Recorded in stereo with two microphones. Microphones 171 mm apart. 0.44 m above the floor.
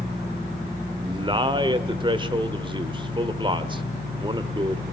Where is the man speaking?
30° right (ahead or behind), 1.0 m.